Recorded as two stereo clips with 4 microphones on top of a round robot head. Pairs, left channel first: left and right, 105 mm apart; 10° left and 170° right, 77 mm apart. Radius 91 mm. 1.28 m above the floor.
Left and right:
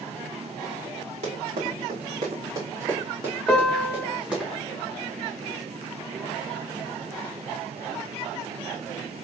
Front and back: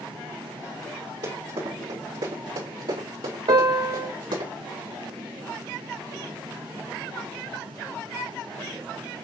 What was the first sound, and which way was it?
Running footsteps, 125° right.